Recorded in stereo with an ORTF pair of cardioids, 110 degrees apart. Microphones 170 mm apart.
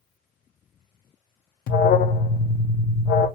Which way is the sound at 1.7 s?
60° left.